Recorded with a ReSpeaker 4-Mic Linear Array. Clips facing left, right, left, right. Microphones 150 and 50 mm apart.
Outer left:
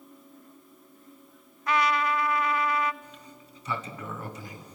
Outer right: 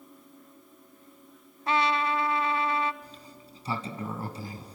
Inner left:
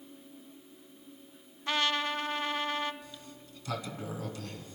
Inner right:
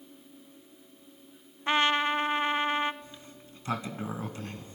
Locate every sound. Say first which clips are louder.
1.7 s a trumpet: outer left 1 dB, inner right 5 dB; 30° right (ahead or behind), 0.5 m
3.0 s a sliding door: even, even; 30° right (ahead or behind), 1.3 m